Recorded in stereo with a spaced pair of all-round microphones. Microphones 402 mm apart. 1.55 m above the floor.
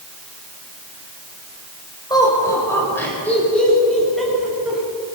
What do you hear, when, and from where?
2.1 s laughter: 10° left (ahead or behind), 7.5 m; by 4.8 s centre (ahead or behind), 10.5 m